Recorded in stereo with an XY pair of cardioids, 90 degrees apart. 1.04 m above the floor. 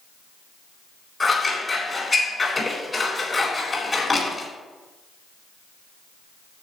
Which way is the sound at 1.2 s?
30° left.